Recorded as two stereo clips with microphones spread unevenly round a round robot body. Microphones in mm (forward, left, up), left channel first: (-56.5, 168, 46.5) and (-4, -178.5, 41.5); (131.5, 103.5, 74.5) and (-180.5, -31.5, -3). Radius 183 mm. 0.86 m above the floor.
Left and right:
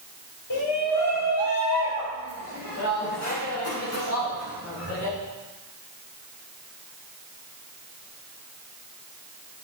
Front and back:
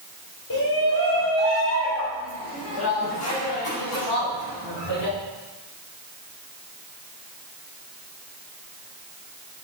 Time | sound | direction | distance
0.5 | a shout | 60° left | 4 m